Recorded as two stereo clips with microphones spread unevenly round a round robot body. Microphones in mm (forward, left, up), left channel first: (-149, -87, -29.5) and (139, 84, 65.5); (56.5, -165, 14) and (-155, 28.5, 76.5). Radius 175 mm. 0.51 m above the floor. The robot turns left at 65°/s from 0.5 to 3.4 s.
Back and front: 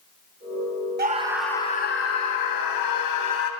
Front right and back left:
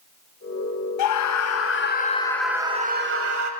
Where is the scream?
35° right, 3 m; by 3.5 s 170° left, 3 m.